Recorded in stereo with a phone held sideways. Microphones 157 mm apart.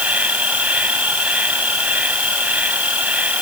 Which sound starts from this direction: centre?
An insect, at 0.0 s.